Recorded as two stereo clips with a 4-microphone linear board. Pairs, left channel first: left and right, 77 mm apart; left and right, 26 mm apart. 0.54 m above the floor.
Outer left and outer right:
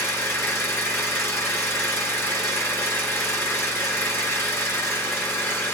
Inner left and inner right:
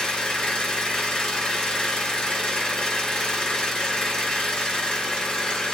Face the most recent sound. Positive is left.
turn(degrees=40)  # may be behind; listen again after turning